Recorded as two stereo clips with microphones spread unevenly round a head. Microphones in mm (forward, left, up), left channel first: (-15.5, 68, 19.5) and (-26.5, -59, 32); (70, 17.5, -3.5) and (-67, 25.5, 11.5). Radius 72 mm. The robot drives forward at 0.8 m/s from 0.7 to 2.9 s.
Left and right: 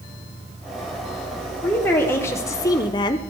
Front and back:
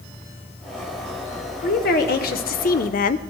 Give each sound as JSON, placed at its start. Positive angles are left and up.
{"t": 1.6, "sound": "a woman speaking", "azimuth_deg": 10, "distance_m": 1.6}